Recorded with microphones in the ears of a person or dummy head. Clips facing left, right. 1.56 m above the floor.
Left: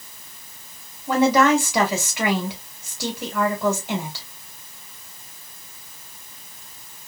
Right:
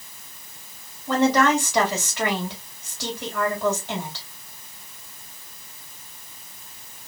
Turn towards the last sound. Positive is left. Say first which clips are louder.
# left 2 dB
turn(degrees=10)  # may be behind; listen again after turning